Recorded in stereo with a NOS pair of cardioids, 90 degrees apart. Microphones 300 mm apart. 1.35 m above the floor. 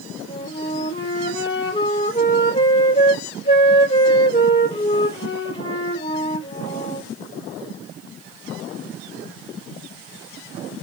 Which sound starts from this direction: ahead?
A flute, at 0.3 s.